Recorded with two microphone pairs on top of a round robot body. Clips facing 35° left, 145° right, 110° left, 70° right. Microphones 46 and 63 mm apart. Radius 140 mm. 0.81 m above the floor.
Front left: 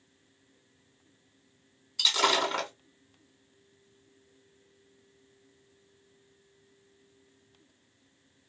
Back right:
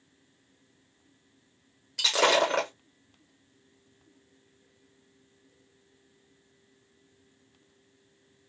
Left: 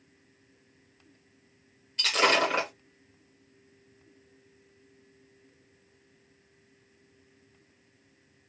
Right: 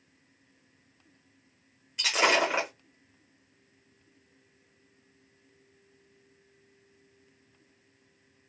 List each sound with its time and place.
2.0 s breaking glass: 150° right, 1.5 m